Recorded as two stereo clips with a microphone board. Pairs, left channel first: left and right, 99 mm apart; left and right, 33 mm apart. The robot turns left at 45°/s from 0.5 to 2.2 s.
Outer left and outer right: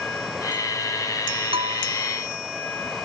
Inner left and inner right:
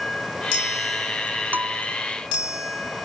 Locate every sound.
1.5 s a bell: 75° right (ahead or behind); by 1.8 s 85° right